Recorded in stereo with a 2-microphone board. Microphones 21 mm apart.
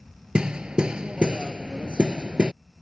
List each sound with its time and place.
0.3 s hammering: 55° right (ahead or behind)